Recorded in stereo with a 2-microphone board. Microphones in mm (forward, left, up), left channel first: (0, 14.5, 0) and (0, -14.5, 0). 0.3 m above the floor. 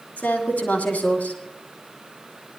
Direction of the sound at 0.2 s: 75° left (ahead or behind).